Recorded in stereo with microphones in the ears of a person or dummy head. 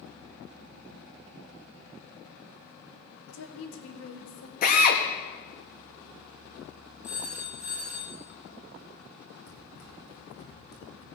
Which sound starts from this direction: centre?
A phone ringing, at 7.0 s.